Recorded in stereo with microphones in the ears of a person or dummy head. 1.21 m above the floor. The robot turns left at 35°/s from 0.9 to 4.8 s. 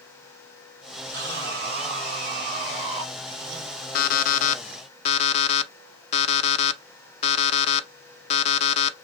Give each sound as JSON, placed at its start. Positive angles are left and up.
{"t": 1.1, "sound": "sawing", "azimuth_deg": -80, "distance_m": 3.0}
{"t": 4.0, "sound": "an alarm clock", "side_deg": 55, "distance_m": 0.6}